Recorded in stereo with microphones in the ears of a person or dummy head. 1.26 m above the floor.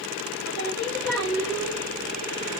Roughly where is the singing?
Centre.